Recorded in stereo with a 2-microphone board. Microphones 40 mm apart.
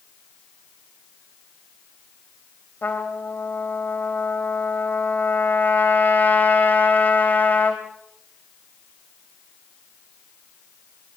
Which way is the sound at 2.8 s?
50° left (ahead or behind).